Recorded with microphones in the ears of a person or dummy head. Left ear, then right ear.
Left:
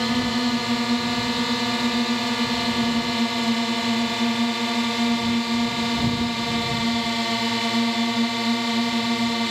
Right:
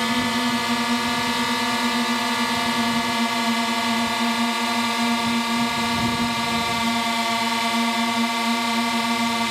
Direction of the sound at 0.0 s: 30° right (ahead or behind).